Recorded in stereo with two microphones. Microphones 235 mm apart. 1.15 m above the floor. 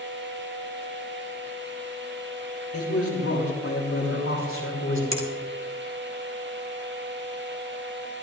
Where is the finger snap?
60° right (ahead or behind), 2 m.